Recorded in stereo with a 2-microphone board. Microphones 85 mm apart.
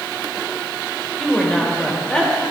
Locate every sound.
1.2 s a woman speaking: 10° left (ahead or behind), 2 m; by 2.3 s 15° left (ahead or behind), 1.6 m